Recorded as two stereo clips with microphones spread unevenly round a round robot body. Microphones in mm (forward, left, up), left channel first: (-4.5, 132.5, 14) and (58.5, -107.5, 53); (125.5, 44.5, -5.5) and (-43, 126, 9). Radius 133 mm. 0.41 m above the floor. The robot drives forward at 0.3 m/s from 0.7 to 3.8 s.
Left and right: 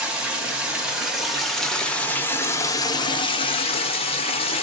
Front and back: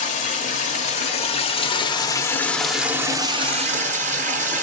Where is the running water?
15° left, 0.9 m; by 4.6 s 135° left, 0.5 m.